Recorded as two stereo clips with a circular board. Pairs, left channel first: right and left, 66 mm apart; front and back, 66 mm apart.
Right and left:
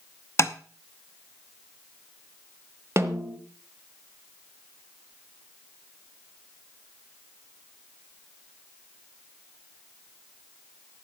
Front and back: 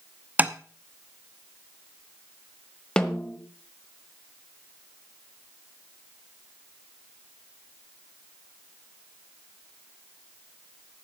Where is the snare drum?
75° left, 1.3 m.